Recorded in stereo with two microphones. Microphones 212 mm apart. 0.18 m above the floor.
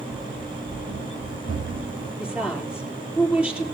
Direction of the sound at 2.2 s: 5° right (ahead or behind).